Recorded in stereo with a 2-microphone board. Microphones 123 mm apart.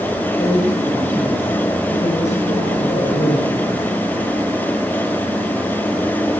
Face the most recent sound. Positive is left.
turn(degrees=65)  # may be behind; listen again after turning